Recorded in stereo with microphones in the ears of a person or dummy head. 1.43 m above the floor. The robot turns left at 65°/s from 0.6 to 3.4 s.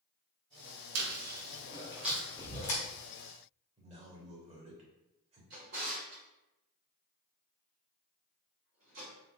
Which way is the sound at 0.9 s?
75° right (ahead or behind).